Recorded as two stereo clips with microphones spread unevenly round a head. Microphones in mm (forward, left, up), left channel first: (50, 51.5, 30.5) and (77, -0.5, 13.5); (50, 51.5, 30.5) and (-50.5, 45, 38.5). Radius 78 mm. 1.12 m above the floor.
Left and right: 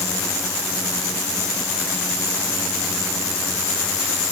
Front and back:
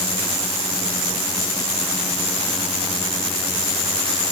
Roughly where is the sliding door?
No sliding door in this recording.